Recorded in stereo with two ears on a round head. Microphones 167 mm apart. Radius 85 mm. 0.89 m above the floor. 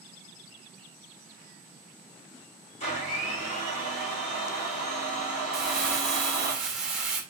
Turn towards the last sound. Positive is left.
turn(degrees=-5)  # may be behind; listen again after turning